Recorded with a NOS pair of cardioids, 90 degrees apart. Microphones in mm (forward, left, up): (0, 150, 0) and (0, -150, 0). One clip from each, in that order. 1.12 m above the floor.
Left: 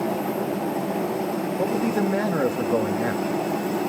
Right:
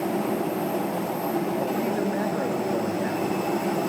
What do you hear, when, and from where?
1.6 s a man speaking: 40° left, 2.5 m